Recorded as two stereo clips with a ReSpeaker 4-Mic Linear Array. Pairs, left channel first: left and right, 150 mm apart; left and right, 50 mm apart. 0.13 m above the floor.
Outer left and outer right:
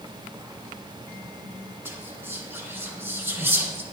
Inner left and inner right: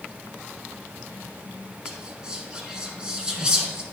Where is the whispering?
15° right (ahead or behind), 1.5 m.